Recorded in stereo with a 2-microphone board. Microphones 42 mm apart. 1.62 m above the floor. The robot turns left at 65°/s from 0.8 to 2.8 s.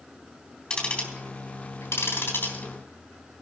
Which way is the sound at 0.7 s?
20° left (ahead or behind).